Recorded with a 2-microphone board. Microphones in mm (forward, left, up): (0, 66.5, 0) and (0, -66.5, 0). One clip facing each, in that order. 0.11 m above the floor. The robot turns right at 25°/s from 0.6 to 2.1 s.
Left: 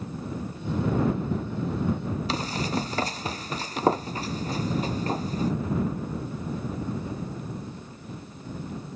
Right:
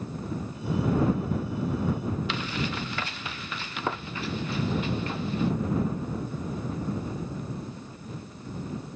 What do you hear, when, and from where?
2.3 s running footsteps: 35° left (ahead or behind); by 5.5 s 40° left (ahead or behind)